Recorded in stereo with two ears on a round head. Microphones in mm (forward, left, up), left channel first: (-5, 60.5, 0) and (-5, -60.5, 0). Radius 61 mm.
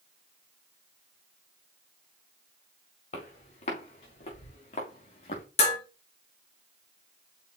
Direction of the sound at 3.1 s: 50° left (ahead or behind).